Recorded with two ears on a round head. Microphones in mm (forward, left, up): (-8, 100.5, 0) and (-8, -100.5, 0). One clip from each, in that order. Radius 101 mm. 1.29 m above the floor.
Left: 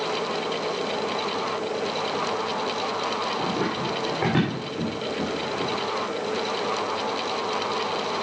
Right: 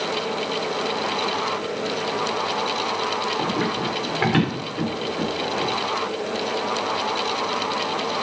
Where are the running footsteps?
75° right (ahead or behind), 6 m; by 5.7 s 80° right, 7 m.